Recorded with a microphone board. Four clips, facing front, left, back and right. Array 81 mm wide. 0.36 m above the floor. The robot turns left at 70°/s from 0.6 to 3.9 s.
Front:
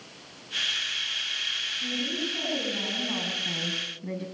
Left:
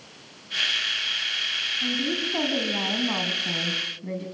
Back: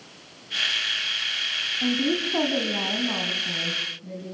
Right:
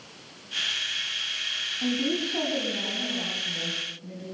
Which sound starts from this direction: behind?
A woman speaking, at 1.8 s.